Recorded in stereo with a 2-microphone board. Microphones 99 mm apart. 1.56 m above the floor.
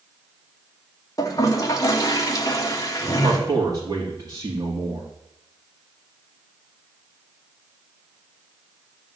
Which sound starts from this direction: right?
A man speaking, at 3.2 s.